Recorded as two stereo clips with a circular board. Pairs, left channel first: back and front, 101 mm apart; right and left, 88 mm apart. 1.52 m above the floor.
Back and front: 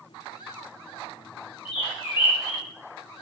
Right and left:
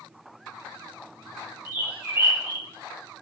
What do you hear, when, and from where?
1.6 s a bird: 150° left, 1.7 m